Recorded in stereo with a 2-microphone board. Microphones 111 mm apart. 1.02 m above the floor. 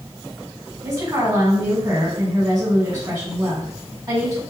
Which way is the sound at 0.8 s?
35° right (ahead or behind).